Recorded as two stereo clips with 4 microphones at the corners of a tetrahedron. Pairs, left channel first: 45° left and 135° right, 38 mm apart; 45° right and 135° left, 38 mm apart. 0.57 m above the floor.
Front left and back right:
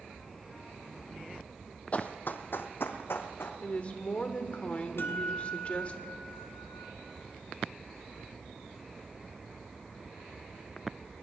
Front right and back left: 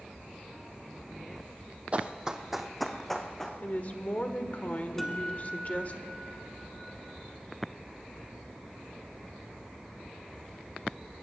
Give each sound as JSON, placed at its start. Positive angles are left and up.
{"t": 1.9, "sound": "running footsteps", "azimuth_deg": 90, "distance_m": 1.0}
{"t": 3.6, "sound": "a woman speaking", "azimuth_deg": -5, "distance_m": 1.4}
{"t": 5.0, "sound": "a guitar", "azimuth_deg": 40, "distance_m": 1.9}